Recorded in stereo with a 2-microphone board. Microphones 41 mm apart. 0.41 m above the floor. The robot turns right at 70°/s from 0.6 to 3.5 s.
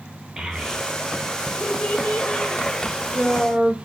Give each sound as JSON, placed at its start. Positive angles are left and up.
{"t": 0.4, "sound": "a child speaking", "side_deg": -20, "distance_m": 0.6}